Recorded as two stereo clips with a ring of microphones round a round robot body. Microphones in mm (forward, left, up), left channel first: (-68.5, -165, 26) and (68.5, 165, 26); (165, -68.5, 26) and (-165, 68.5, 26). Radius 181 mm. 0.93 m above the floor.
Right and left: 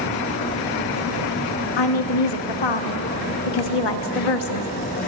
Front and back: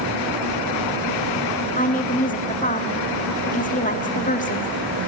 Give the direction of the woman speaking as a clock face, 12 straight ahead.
3 o'clock.